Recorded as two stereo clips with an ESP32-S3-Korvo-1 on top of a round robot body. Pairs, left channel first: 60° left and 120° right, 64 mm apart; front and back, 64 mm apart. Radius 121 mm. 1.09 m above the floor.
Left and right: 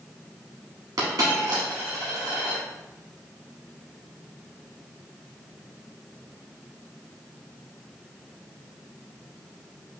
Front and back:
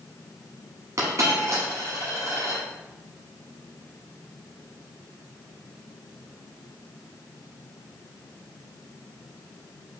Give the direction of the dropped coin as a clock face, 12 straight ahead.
5 o'clock.